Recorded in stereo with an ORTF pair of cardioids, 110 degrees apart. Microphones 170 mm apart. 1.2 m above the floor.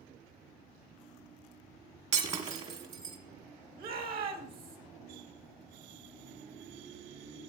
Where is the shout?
60° right, 2 m.